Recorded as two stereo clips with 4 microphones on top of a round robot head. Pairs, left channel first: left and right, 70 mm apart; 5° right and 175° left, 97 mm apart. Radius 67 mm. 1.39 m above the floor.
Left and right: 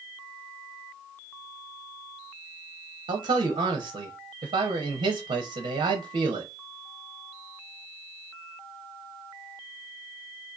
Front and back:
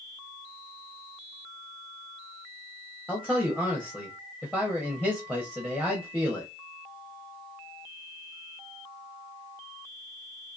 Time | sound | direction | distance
3.1 | a man speaking | 85° right | 0.6 m